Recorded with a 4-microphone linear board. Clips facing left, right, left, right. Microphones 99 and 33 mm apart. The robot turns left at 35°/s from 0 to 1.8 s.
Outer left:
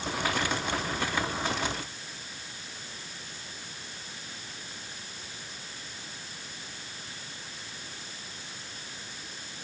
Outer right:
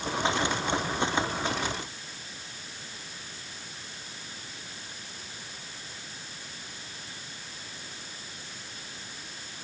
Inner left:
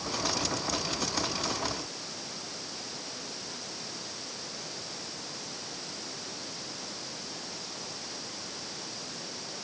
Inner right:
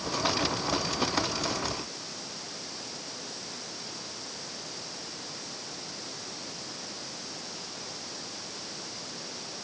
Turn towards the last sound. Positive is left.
No sound to turn to.